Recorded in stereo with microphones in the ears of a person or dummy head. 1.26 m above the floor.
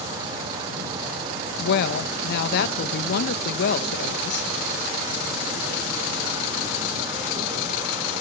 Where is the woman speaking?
55° left (ahead or behind), 1.0 m.